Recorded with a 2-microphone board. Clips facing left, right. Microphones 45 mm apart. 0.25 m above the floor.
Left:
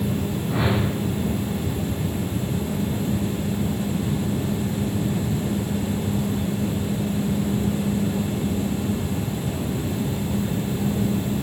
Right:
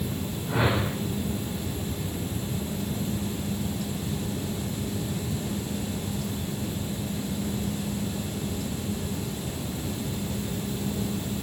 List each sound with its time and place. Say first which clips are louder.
0.5 s a whoosh: left 1 dB; 20° right (ahead or behind), 5.5 m